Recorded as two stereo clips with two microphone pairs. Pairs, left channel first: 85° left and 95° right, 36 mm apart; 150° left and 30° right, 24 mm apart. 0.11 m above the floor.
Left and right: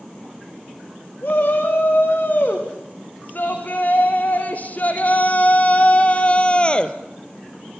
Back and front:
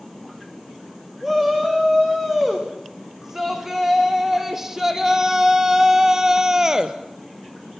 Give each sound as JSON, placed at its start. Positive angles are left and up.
{"t": 1.2, "sound": "a shout", "azimuth_deg": 50, "distance_m": 8.0}